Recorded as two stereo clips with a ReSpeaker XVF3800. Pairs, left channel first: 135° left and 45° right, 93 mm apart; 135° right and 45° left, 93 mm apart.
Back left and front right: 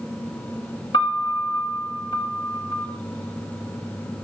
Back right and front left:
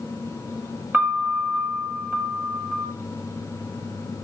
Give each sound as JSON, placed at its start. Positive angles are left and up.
{"t": 0.9, "sound": "a piano", "azimuth_deg": 115, "distance_m": 5.0}